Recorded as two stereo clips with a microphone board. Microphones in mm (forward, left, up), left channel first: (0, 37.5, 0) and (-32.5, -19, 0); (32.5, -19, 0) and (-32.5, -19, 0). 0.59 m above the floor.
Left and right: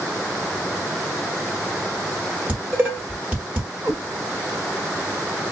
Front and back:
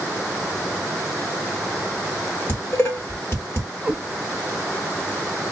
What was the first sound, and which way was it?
Dishes clattering, 50° right.